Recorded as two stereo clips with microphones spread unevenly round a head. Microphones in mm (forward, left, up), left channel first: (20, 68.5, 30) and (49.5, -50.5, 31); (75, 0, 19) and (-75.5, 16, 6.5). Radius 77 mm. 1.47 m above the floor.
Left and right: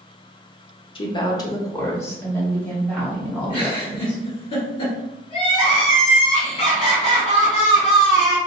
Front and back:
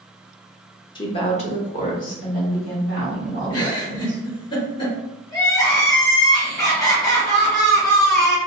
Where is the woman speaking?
55° left, 0.7 m; by 4.2 s 20° left, 2.5 m.